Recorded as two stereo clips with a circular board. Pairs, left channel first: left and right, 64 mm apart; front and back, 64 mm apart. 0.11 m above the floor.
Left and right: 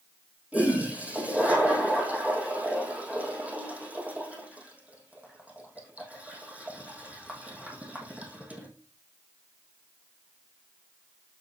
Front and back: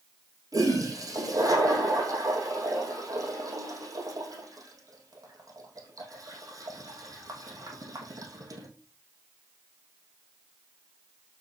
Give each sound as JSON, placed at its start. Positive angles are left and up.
{"t": 0.5, "sound": "a toilet flushing", "azimuth_deg": -155, "distance_m": 4.0}